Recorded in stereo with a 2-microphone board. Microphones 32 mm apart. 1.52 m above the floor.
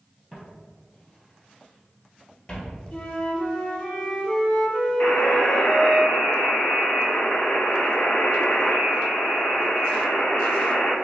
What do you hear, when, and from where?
0.3 s footsteps: 10° right (ahead or behind), 1.9 m; by 2.8 s 30° left (ahead or behind), 1.9 m
2.9 s a flute: 30° left (ahead or behind), 1.2 m
5.0 s a buzzer: 50° left (ahead or behind), 0.9 m